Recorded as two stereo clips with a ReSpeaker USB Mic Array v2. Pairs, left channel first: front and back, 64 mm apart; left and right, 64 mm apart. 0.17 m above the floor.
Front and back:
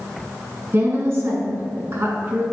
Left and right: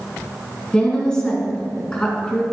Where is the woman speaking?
160° left, 2 m.